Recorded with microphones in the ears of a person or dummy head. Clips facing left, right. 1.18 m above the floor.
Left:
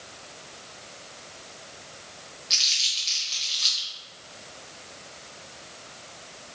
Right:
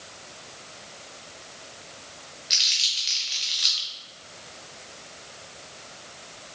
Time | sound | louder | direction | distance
2.5 | crumpling | even | 15° right (ahead or behind) | 0.7 m